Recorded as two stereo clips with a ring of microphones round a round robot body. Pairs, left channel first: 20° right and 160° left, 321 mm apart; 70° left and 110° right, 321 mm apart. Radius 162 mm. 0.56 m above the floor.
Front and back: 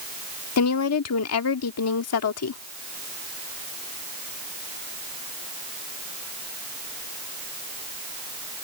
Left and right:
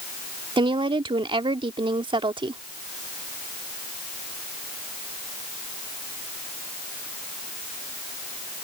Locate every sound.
0.6 s a woman speaking: 40° right